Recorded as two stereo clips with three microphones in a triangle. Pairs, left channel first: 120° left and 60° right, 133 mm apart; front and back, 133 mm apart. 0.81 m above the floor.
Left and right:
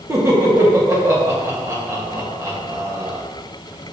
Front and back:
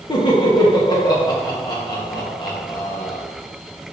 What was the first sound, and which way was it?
Laughter, 10° right.